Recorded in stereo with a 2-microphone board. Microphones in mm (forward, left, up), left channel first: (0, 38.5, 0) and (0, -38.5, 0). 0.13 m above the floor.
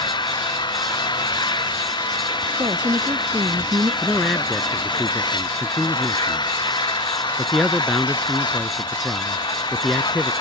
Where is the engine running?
75° left (ahead or behind).